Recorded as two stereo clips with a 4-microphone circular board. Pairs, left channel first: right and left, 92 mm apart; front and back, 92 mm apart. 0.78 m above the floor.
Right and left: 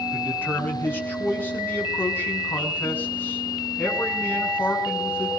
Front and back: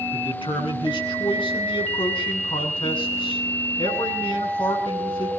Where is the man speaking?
25° right, 7.5 m.